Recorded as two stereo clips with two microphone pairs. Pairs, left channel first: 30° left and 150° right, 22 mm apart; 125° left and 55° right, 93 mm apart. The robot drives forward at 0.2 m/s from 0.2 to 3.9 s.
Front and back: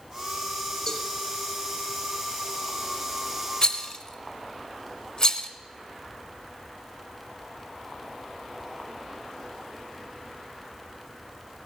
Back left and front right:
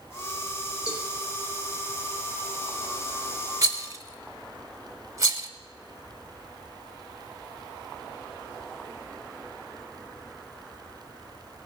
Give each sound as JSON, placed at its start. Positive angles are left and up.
{"t": 0.9, "sound": "a cowbell", "azimuth_deg": 95, "distance_m": 1.5}
{"t": 3.6, "sound": "a rattle", "azimuth_deg": -25, "distance_m": 0.8}